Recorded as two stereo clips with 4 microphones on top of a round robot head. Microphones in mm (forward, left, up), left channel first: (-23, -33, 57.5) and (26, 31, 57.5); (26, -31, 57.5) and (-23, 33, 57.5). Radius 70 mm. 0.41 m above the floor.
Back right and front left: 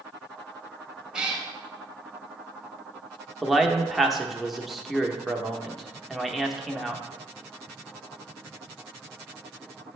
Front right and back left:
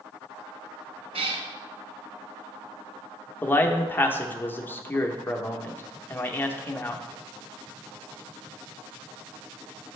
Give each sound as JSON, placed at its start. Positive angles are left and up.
{"t": 1.1, "sound": "a cat meowing", "azimuth_deg": 135, "distance_m": 0.8}
{"t": 3.4, "sound": "a man speaking", "azimuth_deg": -35, "distance_m": 0.8}